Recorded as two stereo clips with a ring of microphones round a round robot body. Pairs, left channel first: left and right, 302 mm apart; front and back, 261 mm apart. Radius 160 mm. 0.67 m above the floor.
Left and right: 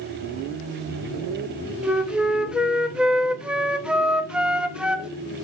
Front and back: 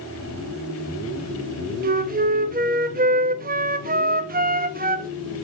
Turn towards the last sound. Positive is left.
turn(degrees=-175)